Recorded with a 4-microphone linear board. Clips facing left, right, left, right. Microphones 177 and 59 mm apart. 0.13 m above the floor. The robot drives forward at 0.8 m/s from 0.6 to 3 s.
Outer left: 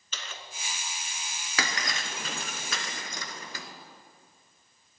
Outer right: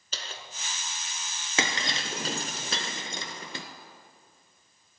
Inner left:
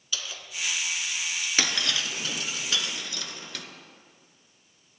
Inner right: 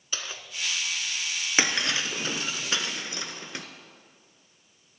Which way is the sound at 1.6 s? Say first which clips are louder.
Outer right 3 dB, inner right 3 dB; 25° right (ahead or behind).